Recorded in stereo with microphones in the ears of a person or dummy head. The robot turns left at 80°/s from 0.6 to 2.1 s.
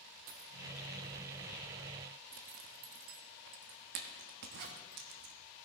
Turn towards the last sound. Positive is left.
turn(degrees=-60)  # may be behind; listen again after turning